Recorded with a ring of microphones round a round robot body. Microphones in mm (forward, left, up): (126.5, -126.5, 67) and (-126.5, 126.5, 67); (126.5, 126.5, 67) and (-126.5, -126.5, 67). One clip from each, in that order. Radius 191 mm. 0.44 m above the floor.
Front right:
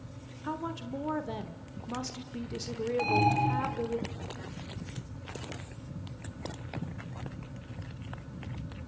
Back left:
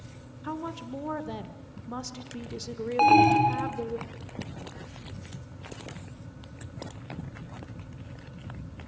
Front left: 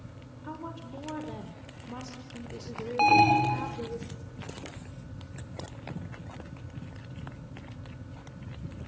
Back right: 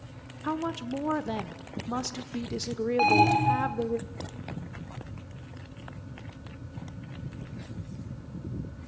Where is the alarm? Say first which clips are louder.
Back left 9 dB, front left 1 dB; 125° left, 1.8 m.